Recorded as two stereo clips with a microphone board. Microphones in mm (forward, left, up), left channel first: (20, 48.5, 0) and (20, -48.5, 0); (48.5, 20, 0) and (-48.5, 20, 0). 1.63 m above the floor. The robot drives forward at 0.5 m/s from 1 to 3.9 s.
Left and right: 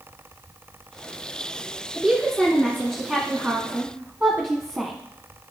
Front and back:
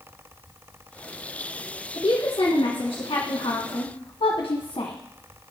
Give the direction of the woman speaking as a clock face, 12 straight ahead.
12 o'clock.